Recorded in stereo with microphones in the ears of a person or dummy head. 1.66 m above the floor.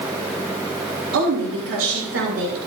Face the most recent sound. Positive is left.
turn(degrees=-80)